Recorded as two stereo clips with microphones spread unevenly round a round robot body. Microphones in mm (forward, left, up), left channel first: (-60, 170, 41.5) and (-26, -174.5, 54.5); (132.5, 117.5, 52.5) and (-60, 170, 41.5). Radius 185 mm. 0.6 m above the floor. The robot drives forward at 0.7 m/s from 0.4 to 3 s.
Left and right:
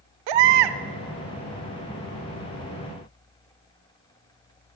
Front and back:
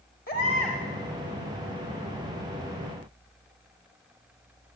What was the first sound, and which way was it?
A baby crying, 80° right.